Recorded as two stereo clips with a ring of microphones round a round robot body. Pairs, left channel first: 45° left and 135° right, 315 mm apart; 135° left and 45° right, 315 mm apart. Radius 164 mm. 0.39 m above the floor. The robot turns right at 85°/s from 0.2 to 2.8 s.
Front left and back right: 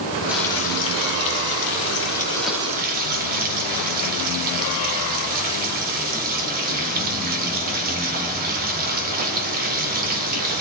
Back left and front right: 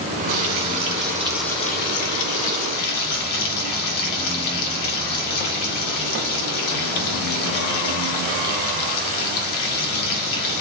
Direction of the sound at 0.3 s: 50° right.